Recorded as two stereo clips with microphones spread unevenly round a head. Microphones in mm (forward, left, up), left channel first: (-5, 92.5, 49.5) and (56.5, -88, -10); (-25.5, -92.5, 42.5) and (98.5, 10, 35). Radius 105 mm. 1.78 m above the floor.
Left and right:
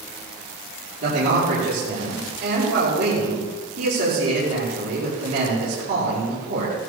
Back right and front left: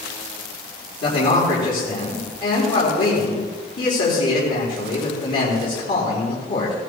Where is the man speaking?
120° right, 4.5 m.